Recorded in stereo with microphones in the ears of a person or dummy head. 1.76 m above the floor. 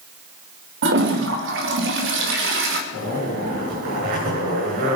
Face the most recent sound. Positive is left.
turn(degrees=-50)  # may be behind; listen again after turning